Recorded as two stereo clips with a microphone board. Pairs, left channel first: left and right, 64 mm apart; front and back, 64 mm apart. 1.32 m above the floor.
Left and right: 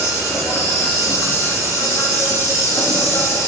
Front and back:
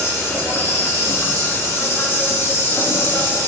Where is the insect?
45° left, 4 m.